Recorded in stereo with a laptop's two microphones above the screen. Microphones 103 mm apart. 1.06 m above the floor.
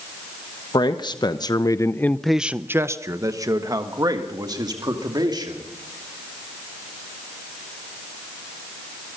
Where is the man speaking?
45° left (ahead or behind), 1.2 m; by 5.6 s 45° right (ahead or behind), 2.5 m.